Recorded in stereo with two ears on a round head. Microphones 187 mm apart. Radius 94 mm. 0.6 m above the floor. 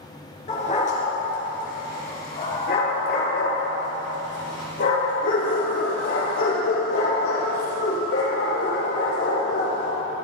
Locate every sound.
0.5 s a dog barking: 35° left (ahead or behind), 3.5 m; by 9.9 s 80° left, 8.5 m